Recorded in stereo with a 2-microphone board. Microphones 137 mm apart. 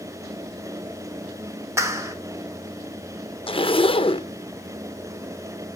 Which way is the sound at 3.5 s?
40° left (ahead or behind).